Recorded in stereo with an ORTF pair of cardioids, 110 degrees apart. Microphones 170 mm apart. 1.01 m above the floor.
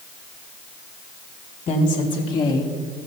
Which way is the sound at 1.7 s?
35° left.